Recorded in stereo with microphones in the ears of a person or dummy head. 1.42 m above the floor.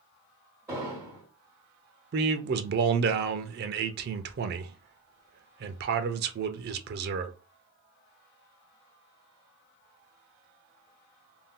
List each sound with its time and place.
0.7 s an explosion: 15° right (ahead or behind), 1.3 m
2.1 s a man speaking: 50° right (ahead or behind), 0.6 m